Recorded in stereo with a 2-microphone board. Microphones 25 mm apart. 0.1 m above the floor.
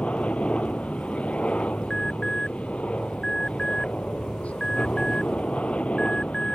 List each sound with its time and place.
0.0 s a helicopter: 50° left (ahead or behind)
1.9 s an alarm: 10° left (ahead or behind)